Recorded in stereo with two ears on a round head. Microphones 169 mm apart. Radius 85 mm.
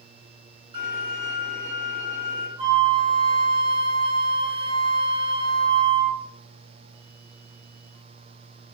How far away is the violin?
About 1.1 m.